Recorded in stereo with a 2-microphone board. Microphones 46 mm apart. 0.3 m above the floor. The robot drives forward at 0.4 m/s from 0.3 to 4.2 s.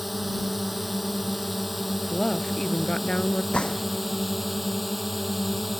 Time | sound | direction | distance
0.0 | a drone | 5° right (ahead or behind) | ?
2.1 | a woman speaking | 10° left (ahead or behind) | ?
3.5 | a gunshot | 20° left (ahead or behind) | ?